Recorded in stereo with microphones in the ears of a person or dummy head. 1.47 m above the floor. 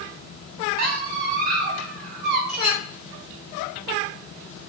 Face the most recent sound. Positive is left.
turn(degrees=0)  # may be behind; listen again after turning